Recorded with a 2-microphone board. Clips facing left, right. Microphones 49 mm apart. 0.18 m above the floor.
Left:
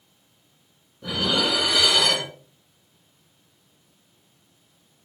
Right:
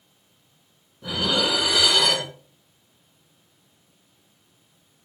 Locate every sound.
1.0 s dishes clattering: 5° right (ahead or behind), 1.6 m